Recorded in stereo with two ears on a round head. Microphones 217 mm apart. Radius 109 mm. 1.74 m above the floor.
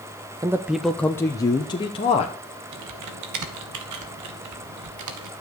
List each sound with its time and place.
0.4 s a man speaking: 15° right (ahead or behind), 0.6 m; by 2.3 s 25° left (ahead or behind), 1.3 m
2.7 s typing on a keyboard: 85° right, 2.0 m